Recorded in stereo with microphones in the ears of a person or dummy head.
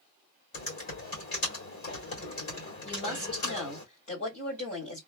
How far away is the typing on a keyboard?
About 1.9 m.